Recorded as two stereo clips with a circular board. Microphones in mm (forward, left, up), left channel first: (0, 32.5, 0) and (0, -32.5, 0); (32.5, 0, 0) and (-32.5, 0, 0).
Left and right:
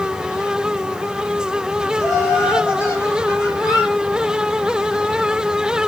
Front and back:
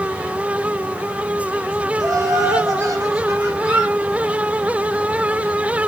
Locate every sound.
2.0 s laughter: 145° left, 5.5 m; by 3.5 s 140° left, 4 m
3.6 s a squeak: 105° left, 4 m